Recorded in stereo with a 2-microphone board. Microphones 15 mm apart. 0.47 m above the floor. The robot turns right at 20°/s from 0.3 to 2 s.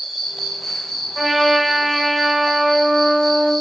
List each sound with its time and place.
0.0 s an insect: 5° right, 1.6 m; by 3.6 s 30° left, 1.6 m
1.1 s a trumpet: 20° left (ahead or behind), 1.0 m; by 3.5 s 5° left (ahead or behind), 1.0 m